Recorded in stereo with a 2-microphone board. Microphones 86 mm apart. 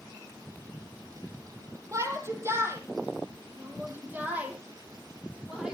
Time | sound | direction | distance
1.9 | a shout | 35° right (ahead or behind) | 5.5 m